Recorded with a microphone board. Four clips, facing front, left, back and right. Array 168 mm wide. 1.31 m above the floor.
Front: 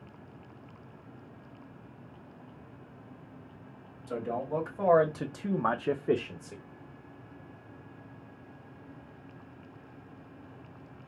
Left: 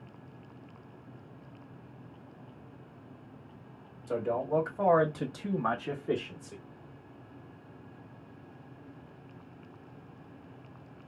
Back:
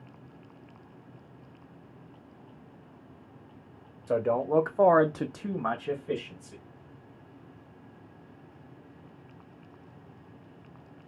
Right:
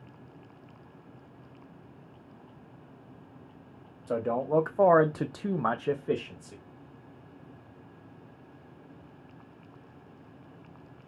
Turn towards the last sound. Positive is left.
turn(degrees=-5)